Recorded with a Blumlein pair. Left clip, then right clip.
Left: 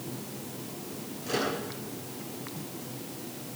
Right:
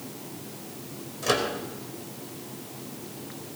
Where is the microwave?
55° right, 4.5 m.